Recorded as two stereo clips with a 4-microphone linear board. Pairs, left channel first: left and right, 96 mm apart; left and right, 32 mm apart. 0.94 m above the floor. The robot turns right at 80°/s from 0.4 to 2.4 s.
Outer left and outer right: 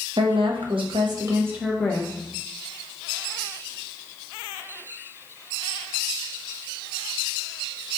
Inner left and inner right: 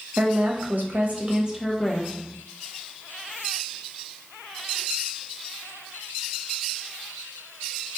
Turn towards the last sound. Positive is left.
turn(degrees=50)